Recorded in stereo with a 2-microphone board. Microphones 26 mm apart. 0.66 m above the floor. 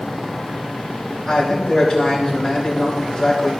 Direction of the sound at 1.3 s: 25° left (ahead or behind).